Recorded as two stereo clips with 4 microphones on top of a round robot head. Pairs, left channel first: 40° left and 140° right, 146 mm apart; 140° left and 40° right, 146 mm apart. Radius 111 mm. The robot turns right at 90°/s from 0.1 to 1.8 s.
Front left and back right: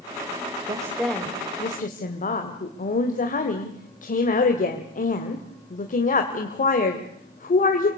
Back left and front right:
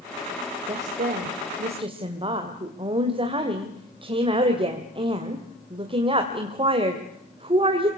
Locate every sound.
0.7 s a woman speaking: 85° right, 2.5 m; by 7.9 s 15° left, 2.5 m